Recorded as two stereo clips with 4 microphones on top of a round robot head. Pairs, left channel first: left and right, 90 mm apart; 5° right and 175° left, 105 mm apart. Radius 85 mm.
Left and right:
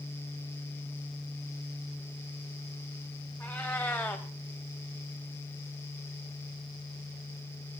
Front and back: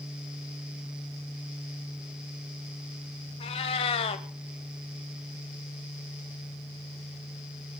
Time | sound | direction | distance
3.4 | a cat meowing | 15° left | 1.2 m